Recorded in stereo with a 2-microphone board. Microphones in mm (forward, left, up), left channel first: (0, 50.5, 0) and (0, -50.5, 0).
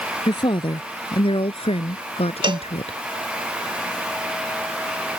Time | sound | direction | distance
0.3 | a woman speaking | 50° left (ahead or behind) | ?
2.4 | a cowbell | 50° right (ahead or behind) | ?